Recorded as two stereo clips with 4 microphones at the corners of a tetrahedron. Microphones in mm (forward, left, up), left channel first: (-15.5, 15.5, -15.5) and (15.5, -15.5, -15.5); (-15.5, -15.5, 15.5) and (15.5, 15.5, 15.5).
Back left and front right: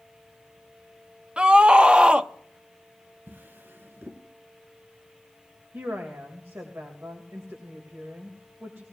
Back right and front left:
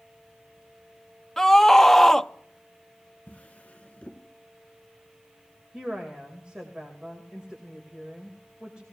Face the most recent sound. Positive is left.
turn(degrees=-25)